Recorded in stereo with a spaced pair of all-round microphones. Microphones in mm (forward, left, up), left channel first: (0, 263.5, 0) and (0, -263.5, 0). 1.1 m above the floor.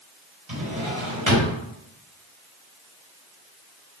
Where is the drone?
No drone in this recording.